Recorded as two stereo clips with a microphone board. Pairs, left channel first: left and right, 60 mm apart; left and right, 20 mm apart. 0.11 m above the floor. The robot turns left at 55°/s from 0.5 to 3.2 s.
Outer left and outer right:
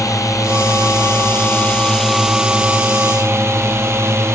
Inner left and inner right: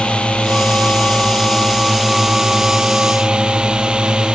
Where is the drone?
95° left; by 4.4 s 55° right.